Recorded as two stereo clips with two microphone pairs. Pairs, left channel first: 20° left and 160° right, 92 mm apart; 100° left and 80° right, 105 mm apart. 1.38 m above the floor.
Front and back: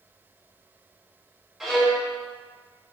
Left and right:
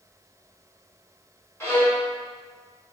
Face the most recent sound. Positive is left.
turn(degrees=120)